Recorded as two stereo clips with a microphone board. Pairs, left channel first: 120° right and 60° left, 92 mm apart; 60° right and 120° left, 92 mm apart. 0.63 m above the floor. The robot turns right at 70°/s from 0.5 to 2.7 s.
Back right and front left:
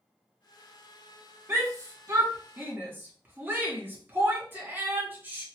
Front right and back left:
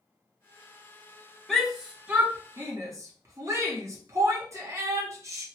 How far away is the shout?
About 0.8 m.